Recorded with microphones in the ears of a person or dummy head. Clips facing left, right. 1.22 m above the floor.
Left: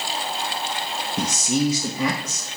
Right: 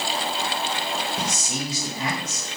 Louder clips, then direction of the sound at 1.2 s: Left 7 dB; 75° left (ahead or behind).